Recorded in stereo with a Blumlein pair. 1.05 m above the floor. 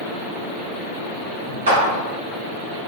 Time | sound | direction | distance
1.7 | a clap | 70° right | 0.9 m